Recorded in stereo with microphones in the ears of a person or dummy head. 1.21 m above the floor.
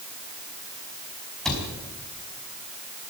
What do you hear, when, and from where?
1.4 s a cupboard door: centre (ahead or behind), 5 m